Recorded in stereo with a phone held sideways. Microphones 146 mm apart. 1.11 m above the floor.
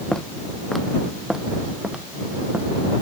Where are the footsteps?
5° left (ahead or behind); by 3.0 s 10° right (ahead or behind).